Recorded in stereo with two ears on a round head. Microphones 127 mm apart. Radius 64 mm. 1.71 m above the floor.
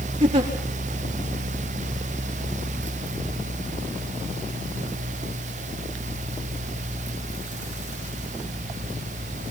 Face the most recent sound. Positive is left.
turn(degrees=-40)  # may be behind; listen again after turning